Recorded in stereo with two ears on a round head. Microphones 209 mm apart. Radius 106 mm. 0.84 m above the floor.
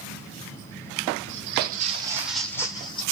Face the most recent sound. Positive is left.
turn(degrees=20)  # may be behind; listen again after turning